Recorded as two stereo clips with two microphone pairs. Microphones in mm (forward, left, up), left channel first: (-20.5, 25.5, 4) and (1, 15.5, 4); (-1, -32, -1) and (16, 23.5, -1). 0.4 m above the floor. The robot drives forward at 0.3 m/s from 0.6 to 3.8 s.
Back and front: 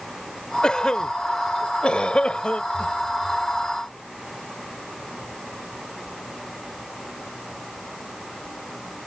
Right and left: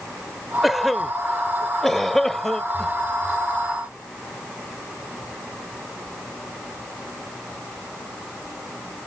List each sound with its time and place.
0.6 s a cough: 160° left; by 2.9 s 170° left